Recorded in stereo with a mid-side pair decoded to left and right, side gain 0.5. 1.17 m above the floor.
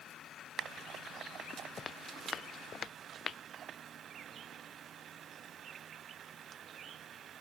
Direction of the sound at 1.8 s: 40° left.